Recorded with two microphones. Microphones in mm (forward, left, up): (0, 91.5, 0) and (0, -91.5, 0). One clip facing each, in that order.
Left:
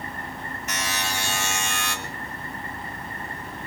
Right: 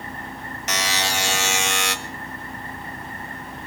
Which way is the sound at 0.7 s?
75° right (ahead or behind).